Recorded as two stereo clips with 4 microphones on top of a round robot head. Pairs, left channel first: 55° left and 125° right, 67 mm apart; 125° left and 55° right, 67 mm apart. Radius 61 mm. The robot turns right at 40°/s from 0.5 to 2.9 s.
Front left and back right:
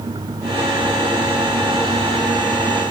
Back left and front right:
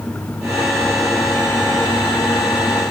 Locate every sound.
Only background noise.